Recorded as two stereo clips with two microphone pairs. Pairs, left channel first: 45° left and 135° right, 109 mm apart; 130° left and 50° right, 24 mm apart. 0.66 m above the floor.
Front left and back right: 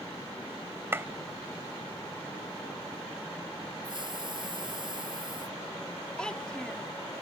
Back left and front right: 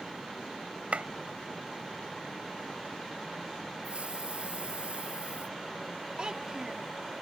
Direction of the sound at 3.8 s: 90° right.